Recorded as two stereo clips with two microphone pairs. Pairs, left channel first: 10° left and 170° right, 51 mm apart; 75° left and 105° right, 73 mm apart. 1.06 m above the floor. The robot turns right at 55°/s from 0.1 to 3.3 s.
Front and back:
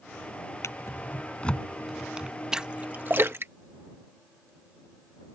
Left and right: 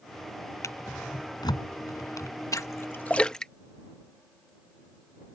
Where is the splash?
115° left; by 4.5 s 155° left.